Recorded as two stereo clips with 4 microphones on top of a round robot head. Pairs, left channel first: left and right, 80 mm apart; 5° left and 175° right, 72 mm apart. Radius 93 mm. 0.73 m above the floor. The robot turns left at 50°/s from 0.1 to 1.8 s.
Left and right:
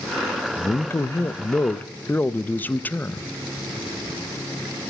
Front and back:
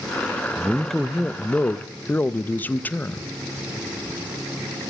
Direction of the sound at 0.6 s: 110° left.